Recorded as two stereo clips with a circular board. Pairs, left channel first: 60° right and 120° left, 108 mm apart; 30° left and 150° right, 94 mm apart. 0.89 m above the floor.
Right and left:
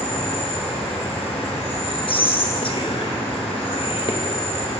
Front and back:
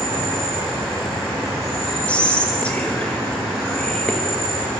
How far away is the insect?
About 3.5 m.